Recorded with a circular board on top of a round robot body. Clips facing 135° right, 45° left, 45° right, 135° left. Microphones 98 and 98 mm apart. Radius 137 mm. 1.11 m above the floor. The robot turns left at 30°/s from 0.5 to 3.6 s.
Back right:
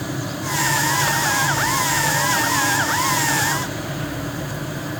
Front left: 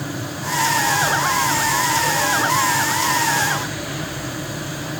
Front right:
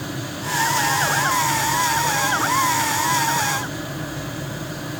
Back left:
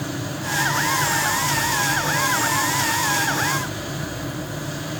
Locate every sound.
Only background noise.